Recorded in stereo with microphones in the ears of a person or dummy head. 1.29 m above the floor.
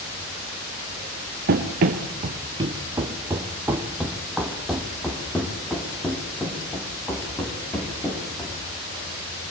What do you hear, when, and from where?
1.5 s running footsteps: 50° right (ahead or behind), 2 m; by 8.6 s 15° left (ahead or behind), 7.5 m